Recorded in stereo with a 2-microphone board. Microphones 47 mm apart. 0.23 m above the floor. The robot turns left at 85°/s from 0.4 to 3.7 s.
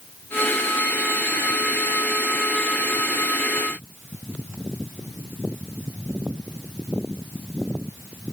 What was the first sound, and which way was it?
Only background noise.